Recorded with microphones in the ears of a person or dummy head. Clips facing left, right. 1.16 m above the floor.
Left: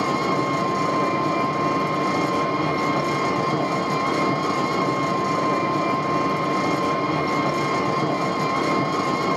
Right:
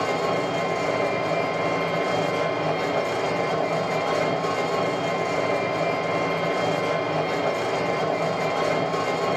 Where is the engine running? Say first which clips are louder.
Left 1 dB; 60° left (ahead or behind), 1.0 m.